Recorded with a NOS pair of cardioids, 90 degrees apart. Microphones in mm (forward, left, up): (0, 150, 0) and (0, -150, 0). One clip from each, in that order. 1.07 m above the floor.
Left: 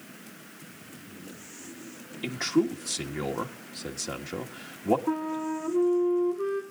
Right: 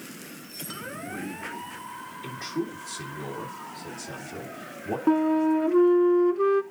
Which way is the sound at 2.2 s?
65° left.